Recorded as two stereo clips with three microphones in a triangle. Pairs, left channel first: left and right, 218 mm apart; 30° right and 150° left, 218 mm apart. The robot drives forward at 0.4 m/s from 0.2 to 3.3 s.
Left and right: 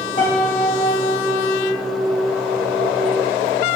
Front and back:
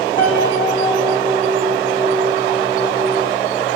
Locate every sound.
0.2 s a piano: 35° left, 4.5 m; by 1.5 s 40° left, 4 m